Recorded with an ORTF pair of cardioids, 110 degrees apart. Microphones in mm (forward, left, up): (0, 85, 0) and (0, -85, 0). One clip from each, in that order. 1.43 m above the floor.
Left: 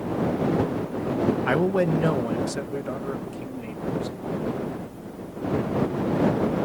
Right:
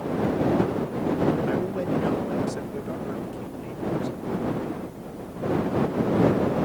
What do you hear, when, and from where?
1.5 s a man speaking: 65° left; by 4.2 s 30° left